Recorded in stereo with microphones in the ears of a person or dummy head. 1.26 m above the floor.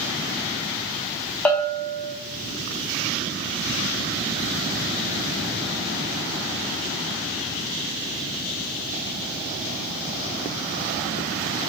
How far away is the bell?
About 0.8 m.